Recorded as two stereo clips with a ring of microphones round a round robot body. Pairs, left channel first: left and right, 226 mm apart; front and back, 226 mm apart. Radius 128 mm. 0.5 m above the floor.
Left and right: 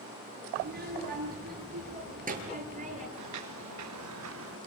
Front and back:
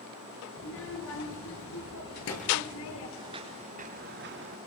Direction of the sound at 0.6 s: 45° right.